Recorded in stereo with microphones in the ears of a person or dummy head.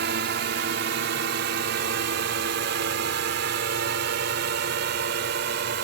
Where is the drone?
55° right (ahead or behind); by 5.9 s 60° right (ahead or behind).